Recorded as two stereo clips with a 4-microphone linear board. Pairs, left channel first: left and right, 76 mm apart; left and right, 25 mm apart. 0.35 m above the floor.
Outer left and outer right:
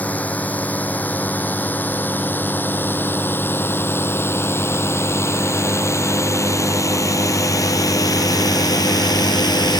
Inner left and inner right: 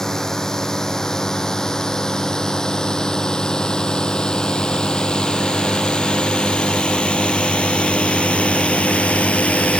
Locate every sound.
0.0 s a drone: 20° left (ahead or behind); by 9.8 s 65° left (ahead or behind)